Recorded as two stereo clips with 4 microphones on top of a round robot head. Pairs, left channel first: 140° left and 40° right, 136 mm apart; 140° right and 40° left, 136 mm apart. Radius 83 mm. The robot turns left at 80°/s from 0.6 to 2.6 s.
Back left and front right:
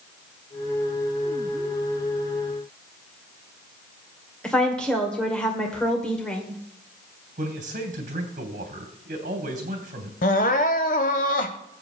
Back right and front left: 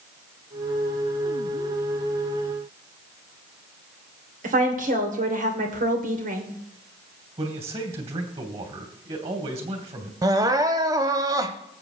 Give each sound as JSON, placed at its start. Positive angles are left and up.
{"t": 4.4, "sound": "a woman speaking", "azimuth_deg": 55, "distance_m": 2.5}
{"t": 7.4, "sound": "a man speaking", "azimuth_deg": -10, "distance_m": 3.0}
{"t": 10.2, "sound": "crying", "azimuth_deg": 105, "distance_m": 0.8}